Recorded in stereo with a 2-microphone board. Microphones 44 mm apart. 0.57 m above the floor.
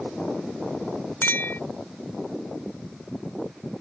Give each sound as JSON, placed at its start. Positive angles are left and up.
{"t": 1.2, "sound": "a clink", "side_deg": 55}